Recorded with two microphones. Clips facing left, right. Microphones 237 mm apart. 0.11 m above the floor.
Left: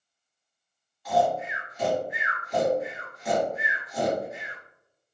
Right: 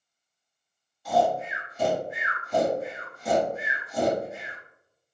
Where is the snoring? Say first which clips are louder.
Even; 30° right (ahead or behind), 1.6 m.